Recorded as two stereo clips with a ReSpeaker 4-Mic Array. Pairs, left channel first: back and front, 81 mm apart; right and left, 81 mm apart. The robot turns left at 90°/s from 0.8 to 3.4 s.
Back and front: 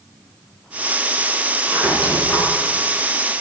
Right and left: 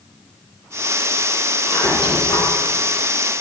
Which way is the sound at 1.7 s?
50° right.